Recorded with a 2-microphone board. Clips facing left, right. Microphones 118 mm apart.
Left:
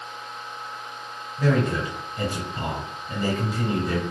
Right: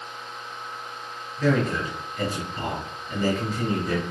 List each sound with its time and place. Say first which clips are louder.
1.4 s a man speaking: even; 20° left (ahead or behind), 1.1 m